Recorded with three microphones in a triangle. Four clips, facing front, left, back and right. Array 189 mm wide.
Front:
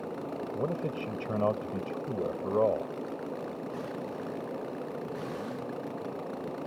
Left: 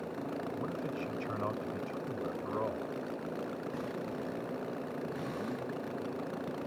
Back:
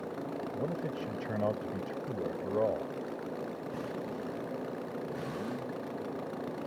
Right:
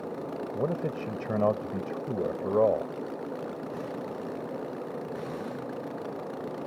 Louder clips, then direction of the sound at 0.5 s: Right 7 dB, front 4 dB; 75° right.